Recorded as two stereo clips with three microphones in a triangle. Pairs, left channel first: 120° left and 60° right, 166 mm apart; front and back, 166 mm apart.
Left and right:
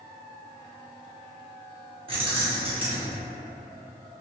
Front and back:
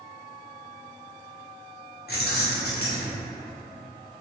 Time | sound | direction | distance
2.1 | keys jangling | 5° right | 0.9 m